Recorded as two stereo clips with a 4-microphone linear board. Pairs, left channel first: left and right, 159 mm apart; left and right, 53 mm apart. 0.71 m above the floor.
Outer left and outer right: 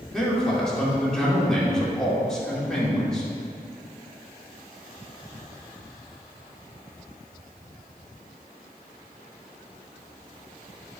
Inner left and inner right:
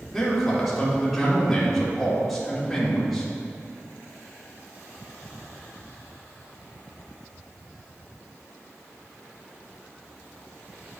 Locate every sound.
0.1 s a man speaking: 5° left (ahead or behind), 2 m